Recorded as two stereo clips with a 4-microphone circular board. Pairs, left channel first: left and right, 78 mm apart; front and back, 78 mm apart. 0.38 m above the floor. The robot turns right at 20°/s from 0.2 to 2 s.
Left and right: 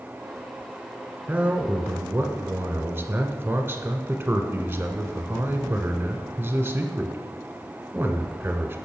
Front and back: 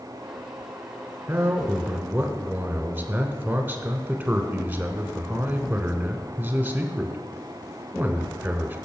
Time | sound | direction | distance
1.3 | a man speaking | 140° right | 1.1 m